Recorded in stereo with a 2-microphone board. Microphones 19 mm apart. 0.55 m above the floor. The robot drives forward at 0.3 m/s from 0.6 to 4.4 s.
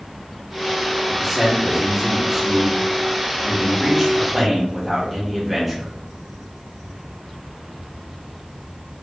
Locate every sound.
1.1 s a man speaking: 10° right (ahead or behind), 1.2 m; by 5.9 s 5° right (ahead or behind), 1.8 m